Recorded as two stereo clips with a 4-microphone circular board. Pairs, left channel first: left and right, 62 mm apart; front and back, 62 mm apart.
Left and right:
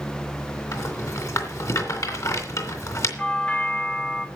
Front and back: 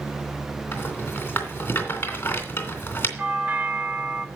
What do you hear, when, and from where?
0.7 s a rattle: 55° left, 3 m
3.2 s a doorbell: 145° left, 1.2 m